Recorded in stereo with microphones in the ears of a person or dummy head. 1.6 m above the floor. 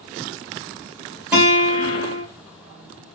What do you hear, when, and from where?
1.3 s a guitar: 10° right (ahead or behind), 1.9 m